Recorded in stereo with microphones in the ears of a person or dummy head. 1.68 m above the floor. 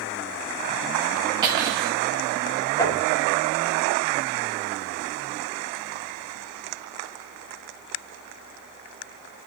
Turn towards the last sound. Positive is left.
turn(degrees=20)  # may be behind; listen again after turning